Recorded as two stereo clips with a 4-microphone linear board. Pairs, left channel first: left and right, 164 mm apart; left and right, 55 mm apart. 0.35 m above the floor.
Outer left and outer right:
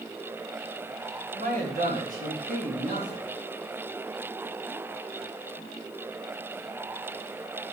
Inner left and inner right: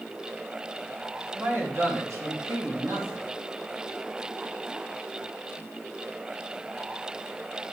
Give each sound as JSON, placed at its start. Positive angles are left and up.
{"t": 1.4, "sound": "a man speaking", "side_deg": -60, "distance_m": 2.0}